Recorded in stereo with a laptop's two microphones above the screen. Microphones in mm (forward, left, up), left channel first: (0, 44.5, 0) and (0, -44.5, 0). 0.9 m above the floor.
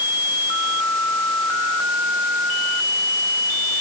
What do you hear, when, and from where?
Only background noise.